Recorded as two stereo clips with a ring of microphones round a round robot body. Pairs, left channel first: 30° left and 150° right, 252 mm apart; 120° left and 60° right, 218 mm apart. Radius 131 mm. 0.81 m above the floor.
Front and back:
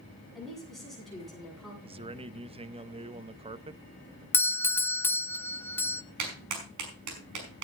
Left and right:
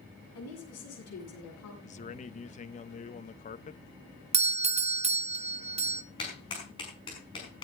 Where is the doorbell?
45° right, 0.8 m.